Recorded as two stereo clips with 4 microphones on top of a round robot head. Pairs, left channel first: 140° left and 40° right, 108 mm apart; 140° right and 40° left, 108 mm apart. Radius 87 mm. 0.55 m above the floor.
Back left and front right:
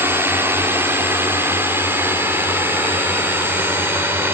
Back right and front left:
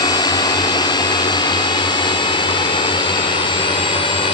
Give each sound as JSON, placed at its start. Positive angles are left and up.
{"t": 0.0, "sound": "a drone", "azimuth_deg": -105}